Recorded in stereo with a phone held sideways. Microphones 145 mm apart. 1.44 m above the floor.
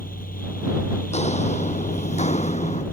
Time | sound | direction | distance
0.0 | a fan | 80° left | ?
1.1 | footsteps | 50° left (ahead or behind) | ?